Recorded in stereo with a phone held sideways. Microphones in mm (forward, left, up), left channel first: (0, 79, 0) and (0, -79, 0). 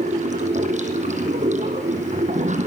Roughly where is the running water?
Right.